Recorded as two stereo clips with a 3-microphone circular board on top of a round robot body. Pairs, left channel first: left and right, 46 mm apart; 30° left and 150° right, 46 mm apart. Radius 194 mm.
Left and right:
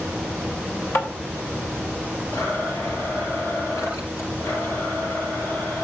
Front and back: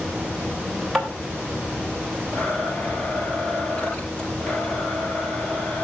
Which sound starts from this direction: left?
A blender, at 2.3 s.